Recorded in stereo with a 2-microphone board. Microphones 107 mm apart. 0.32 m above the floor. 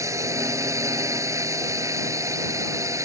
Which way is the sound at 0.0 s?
30° right (ahead or behind).